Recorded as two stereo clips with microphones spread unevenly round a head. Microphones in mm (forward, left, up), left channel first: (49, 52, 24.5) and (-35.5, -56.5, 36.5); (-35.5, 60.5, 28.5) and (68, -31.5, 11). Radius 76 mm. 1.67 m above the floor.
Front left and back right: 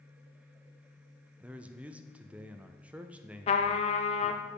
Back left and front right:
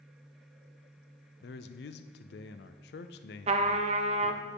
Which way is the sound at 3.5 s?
5° left.